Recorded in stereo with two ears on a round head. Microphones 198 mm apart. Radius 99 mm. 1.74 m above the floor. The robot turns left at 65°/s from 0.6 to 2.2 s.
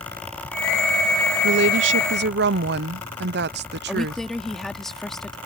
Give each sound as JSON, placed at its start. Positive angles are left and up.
{"t": 1.4, "sound": "a woman speaking", "azimuth_deg": -65}
{"t": 3.9, "sound": "a woman speaking", "side_deg": 0}